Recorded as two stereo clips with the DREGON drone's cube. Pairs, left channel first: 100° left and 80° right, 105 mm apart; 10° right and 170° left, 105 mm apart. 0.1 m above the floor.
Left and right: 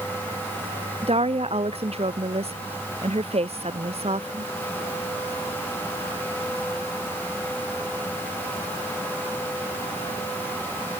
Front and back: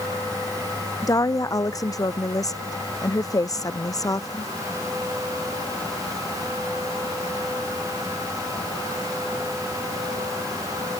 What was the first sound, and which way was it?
A woman speaking, 65° right.